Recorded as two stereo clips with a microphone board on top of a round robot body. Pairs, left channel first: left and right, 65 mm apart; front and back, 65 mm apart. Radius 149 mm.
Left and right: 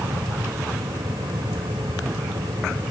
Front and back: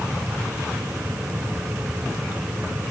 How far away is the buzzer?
No buzzer in this recording.